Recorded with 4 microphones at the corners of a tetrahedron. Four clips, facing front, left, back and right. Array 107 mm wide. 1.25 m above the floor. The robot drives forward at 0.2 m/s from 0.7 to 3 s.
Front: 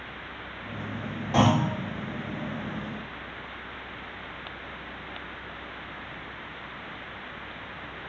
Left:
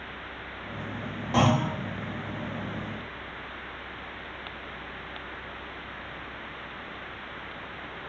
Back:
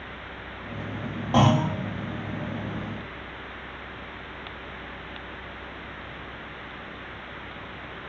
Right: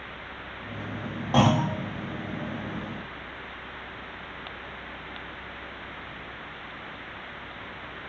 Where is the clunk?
140° right, 1.0 m; by 1.7 s 145° right, 1.0 m.